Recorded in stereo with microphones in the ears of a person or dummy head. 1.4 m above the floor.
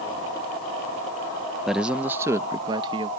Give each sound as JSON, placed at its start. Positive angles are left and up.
{"t": 1.7, "sound": "a man speaking", "side_deg": 0}